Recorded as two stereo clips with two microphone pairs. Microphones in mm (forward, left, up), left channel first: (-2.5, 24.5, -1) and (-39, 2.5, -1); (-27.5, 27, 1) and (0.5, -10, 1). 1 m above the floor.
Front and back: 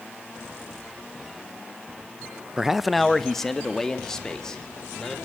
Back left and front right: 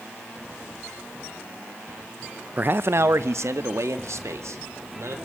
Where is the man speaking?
90° right, 0.5 m; by 5.2 s 50° right, 3.5 m.